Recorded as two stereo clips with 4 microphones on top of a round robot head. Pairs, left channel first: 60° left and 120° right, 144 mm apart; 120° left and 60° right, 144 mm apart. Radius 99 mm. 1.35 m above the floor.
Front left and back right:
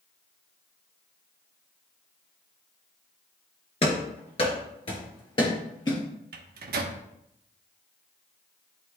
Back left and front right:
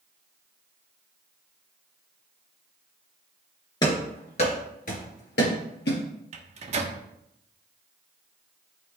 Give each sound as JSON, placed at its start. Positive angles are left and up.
{"t": 3.8, "sound": "running footsteps", "azimuth_deg": 80, "distance_m": 1.4}
{"t": 6.3, "sound": "a microwave", "azimuth_deg": -105, "distance_m": 0.9}